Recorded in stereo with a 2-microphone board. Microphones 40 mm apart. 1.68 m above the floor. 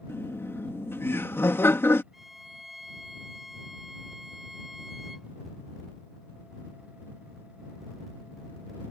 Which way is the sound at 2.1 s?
5° right (ahead or behind).